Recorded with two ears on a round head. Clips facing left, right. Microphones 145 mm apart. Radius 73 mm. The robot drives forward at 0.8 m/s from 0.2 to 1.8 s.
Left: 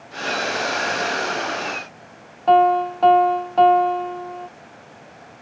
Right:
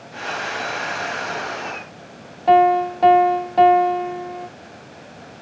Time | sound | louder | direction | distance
2.5 | a piano | right 1 dB | 15° right (ahead or behind) | ?